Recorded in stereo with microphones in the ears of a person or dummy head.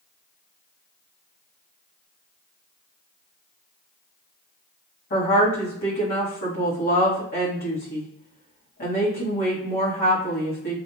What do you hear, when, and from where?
5.1 s a woman speaking: 50° left (ahead or behind), 1.6 m